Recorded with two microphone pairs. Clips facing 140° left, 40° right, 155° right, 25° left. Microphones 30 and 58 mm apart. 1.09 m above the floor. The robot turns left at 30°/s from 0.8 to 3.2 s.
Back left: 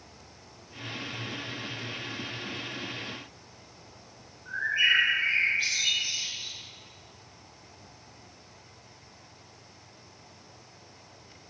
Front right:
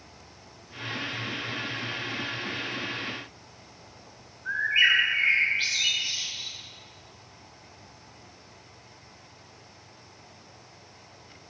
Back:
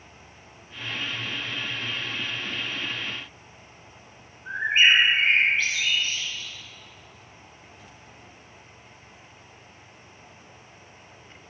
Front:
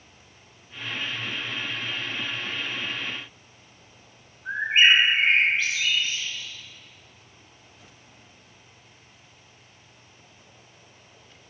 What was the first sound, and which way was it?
A bird, 50° right.